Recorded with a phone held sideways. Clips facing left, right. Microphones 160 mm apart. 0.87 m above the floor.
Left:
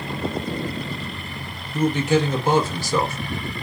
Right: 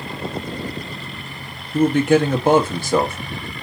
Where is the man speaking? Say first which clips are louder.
Right 5 dB; 55° right (ahead or behind), 0.8 m.